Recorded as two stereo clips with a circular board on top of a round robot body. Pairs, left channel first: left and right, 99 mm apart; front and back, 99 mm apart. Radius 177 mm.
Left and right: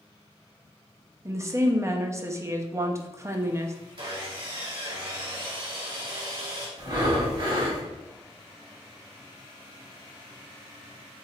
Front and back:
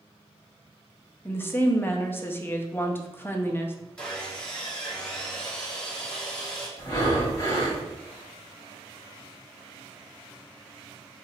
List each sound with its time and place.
1.2 s a woman speaking: 50° right, 0.7 m
4.0 s sawing: 80° right, 1.7 m
6.8 s breathing: 50° right, 1.5 m